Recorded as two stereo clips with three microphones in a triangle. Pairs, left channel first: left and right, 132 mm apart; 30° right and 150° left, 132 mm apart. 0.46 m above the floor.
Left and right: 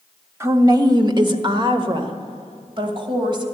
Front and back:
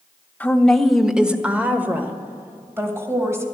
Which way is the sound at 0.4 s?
90° right.